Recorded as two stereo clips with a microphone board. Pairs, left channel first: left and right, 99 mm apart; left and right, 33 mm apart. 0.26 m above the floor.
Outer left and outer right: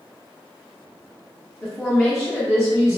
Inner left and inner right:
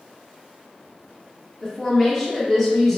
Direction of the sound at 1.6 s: 5° left (ahead or behind).